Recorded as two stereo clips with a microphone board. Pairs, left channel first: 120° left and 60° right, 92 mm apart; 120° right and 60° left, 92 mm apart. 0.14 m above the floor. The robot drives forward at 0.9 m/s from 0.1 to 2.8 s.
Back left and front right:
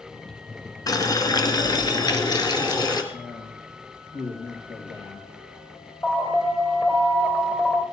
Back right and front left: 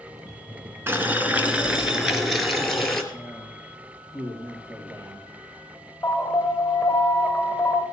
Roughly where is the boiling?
Behind left.